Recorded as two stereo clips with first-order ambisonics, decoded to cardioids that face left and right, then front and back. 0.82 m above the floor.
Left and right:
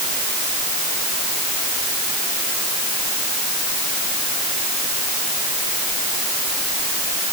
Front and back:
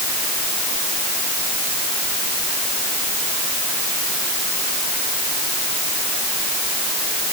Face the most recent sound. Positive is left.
No sound to turn to.